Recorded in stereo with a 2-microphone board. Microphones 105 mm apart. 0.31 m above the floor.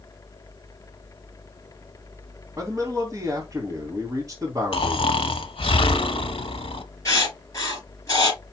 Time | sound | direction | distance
2.6 | a man speaking | 30° right (ahead or behind) | 2.5 m
4.7 | snoring | 65° left (ahead or behind) | 0.8 m
7.0 | writing | 35° left (ahead or behind) | 4 m